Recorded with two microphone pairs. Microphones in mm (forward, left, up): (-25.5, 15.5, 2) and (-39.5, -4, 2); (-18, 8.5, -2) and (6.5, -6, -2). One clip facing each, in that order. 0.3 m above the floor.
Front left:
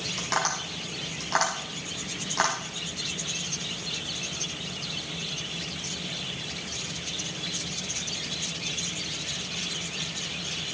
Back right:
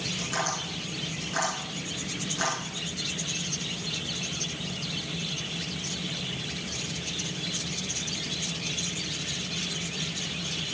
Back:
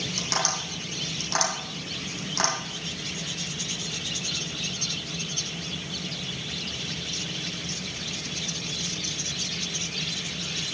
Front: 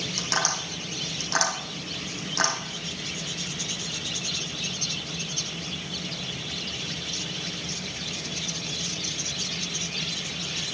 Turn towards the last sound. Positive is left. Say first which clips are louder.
# front left 2 dB, front 1 dB
turn(degrees=60)